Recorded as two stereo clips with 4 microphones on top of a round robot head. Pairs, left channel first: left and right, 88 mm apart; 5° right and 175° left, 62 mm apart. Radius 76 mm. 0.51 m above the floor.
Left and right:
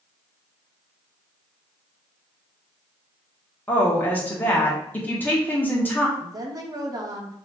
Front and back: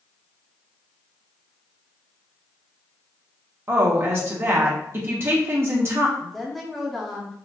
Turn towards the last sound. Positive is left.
turn(degrees=-90)